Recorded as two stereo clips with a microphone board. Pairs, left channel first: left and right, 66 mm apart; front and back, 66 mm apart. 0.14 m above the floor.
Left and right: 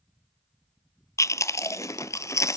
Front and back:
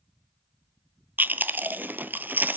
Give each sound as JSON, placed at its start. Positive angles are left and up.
{"t": 1.2, "sound": "chewing", "azimuth_deg": 120, "distance_m": 0.5}